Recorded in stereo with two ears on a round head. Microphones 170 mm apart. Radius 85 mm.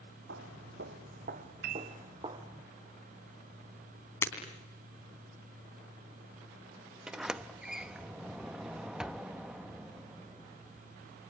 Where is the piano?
60° right (ahead or behind), 1.1 m.